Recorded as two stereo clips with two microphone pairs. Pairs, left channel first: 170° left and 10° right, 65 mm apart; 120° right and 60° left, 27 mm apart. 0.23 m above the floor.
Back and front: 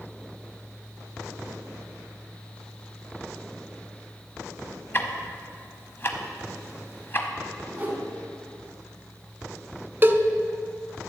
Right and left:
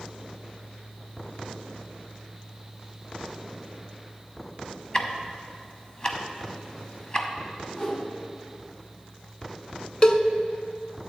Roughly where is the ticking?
Behind.